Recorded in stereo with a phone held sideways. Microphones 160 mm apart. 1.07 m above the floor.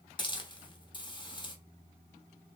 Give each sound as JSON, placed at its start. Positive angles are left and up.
{"t": 0.2, "sound": "a hiss", "side_deg": 30, "distance_m": 0.8}